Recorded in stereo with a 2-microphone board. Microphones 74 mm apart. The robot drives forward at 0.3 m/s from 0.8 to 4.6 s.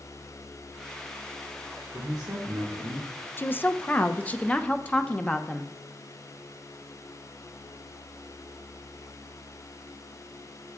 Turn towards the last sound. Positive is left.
turn(degrees=20)  # may be behind; listen again after turning